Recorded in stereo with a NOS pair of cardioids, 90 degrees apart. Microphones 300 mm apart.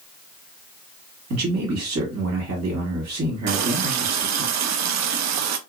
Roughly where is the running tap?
Ahead right.